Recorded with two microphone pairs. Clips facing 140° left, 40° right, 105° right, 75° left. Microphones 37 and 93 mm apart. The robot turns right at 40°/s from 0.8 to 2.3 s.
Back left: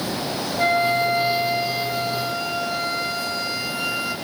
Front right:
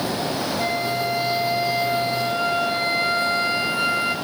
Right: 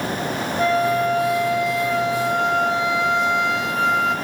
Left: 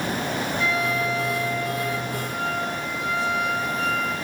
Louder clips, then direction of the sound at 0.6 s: Back left 8 dB, right 9 dB; 155° right.